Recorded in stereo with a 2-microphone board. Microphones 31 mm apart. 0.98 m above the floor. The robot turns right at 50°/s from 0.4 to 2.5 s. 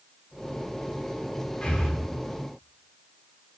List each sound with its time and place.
1.6 s breathing: 35° left (ahead or behind), 3 m; by 1.9 s 20° left (ahead or behind), 3 m